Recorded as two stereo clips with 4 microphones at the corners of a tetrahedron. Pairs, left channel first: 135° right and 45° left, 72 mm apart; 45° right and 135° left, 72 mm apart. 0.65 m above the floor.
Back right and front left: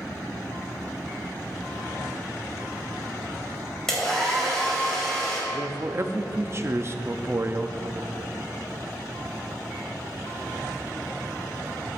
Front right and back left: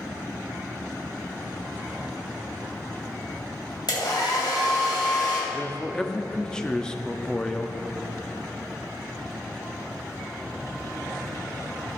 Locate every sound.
3.9 s a hair dryer: 55° right, 3 m
5.5 s a man speaking: 30° left, 0.6 m